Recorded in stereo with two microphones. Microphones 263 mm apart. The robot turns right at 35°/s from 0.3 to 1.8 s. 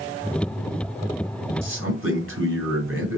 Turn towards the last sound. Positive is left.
turn(degrees=-50)  # may be behind; listen again after turning